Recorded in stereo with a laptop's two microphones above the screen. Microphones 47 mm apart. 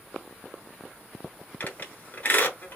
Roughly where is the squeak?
Left.